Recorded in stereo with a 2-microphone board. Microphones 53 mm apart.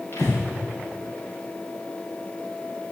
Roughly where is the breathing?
Left.